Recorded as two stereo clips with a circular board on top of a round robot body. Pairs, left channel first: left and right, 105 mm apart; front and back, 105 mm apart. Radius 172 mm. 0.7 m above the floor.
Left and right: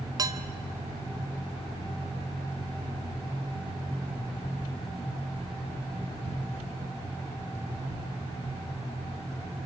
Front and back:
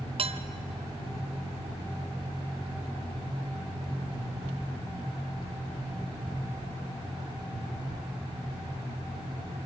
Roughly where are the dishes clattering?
Behind right.